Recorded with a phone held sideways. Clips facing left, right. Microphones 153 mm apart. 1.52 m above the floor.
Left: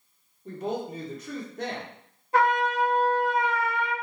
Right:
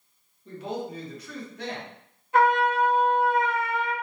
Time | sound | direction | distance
0.5 | a woman speaking | 45° left (ahead or behind) | 1.0 m
2.3 | a trumpet | 35° left (ahead or behind) | 1.6 m